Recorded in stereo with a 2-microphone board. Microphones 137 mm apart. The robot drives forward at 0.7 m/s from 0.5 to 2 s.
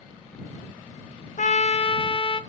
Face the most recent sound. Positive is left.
turn(degrees=40)  # may be behind; listen again after turning